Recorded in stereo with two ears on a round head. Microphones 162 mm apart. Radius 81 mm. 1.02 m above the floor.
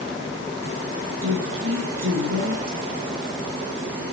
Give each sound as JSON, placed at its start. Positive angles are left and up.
{"t": 1.2, "sound": "a woman speaking", "side_deg": -90, "distance_m": 8.0}